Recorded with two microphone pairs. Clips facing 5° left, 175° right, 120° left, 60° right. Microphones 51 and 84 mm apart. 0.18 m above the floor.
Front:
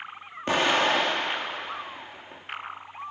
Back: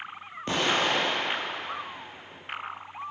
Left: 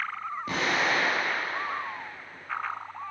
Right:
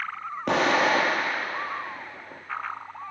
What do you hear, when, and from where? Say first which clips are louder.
0.5 s an explosion: front 3 dB, right 6 dB; 65° right, 2 m